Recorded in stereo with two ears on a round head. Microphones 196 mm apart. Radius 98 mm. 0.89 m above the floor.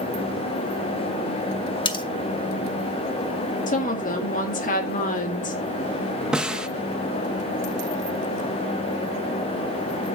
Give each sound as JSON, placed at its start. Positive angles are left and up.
{"t": 1.9, "sound": "cutlery clinking", "side_deg": 20, "distance_m": 0.9}
{"t": 3.7, "sound": "a woman speaking", "side_deg": 40, "distance_m": 1.9}
{"t": 6.3, "sound": "a snare drum", "side_deg": -5, "distance_m": 0.7}